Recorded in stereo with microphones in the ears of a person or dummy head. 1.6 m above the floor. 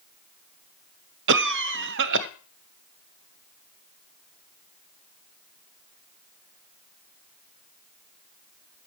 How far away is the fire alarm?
No fire alarm in this recording.